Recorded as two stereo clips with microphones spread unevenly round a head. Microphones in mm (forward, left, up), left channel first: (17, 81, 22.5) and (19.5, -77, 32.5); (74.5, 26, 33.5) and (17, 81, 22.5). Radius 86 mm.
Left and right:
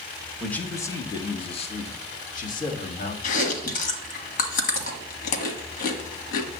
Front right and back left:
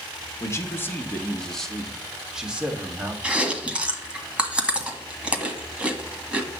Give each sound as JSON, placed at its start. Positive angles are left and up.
{"t": 0.4, "sound": "a man speaking", "azimuth_deg": 10, "distance_m": 1.2}
{"t": 3.2, "sound": "chewing", "azimuth_deg": 55, "distance_m": 1.5}